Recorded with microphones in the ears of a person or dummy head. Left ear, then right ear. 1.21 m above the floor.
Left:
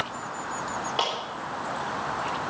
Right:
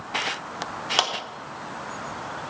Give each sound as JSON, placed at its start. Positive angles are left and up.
{"t": 1.0, "sound": "a clap", "side_deg": -75, "distance_m": 3.5}